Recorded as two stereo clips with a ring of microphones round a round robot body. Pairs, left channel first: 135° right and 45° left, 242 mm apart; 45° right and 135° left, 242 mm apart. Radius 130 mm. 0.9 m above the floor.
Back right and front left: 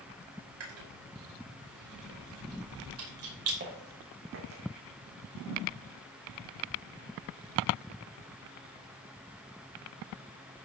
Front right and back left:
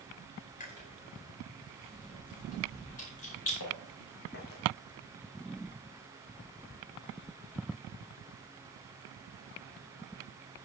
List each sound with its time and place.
0.6 s chewing: 15° left, 5 m
3.6 s footsteps: 10° right, 4 m; by 4.6 s 10° left, 3.5 m